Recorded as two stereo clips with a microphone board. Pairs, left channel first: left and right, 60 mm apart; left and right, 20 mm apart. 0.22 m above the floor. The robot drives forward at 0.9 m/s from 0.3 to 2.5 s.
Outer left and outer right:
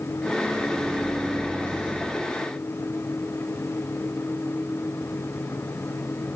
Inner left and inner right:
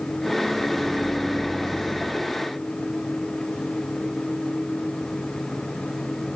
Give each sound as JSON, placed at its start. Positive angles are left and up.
{"t": 0.4, "sound": "a microwave", "side_deg": -15, "distance_m": 2.0}